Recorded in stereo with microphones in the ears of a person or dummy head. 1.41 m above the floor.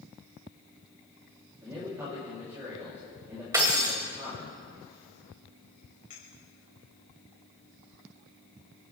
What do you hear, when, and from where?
1.6 s a man speaking: 15° right (ahead or behind), 3.5 m
3.5 s breaking glass: 20° right (ahead or behind), 2 m
6.1 s a clink: 35° left (ahead or behind), 4.5 m